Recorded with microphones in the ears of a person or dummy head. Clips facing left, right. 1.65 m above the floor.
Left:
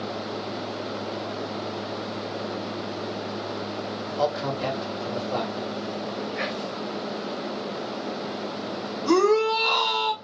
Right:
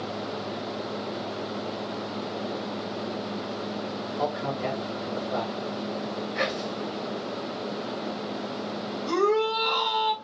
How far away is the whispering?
About 0.8 m.